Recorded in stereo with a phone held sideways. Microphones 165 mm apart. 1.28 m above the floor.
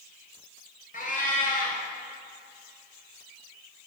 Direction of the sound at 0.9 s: 50° left (ahead or behind).